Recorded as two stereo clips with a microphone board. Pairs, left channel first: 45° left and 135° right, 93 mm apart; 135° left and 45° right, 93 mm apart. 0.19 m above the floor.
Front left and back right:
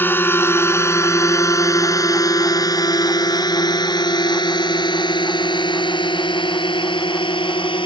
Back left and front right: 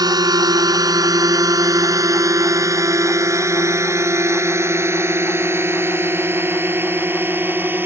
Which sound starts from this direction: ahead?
A drone, at 0.0 s.